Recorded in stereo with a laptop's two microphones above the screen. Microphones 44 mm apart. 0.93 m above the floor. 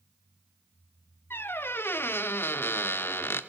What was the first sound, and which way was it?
A squeak, 60° left (ahead or behind).